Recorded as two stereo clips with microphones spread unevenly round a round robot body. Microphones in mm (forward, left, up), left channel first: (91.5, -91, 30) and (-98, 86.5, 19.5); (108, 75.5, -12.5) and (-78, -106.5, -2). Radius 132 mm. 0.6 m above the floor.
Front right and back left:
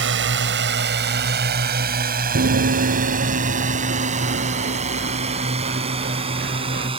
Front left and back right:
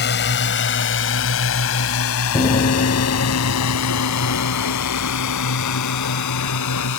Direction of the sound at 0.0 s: 95° left.